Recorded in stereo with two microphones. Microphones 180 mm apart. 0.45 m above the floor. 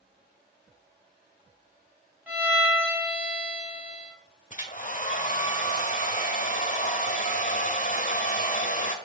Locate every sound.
2.3 s a violin: 10° right (ahead or behind), 4 m
4.5 s a hair dryer: 45° left (ahead or behind), 1.3 m